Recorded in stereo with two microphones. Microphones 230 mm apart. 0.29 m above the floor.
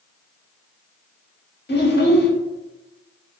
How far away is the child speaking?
About 0.7 m.